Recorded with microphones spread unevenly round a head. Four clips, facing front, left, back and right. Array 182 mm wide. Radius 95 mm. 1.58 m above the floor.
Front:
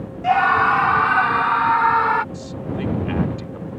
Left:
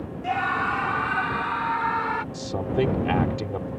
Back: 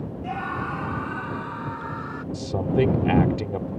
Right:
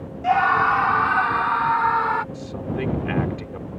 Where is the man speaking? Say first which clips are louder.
Left 3 dB, back 5 dB; 155° left.